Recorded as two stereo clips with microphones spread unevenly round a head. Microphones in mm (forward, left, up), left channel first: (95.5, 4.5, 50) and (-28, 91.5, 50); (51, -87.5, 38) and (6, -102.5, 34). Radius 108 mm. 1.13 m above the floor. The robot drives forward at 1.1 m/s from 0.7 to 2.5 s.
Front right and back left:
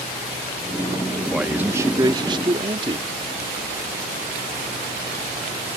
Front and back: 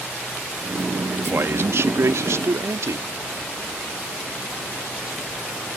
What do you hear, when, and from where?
1.3 s a man speaking: 125° right; by 3.1 s 150° right